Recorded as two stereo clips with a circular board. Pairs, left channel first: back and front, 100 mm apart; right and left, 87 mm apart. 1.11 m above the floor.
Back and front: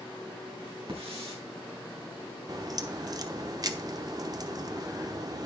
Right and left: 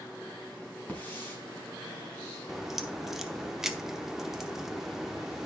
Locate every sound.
0.9 s a hiss: 20° right, 4.5 m
2.5 s a crack: 5° left, 0.8 m